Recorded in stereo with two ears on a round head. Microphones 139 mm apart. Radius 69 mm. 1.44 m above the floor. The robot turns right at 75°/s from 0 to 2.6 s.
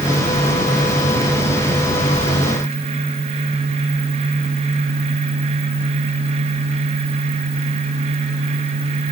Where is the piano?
No piano in this recording.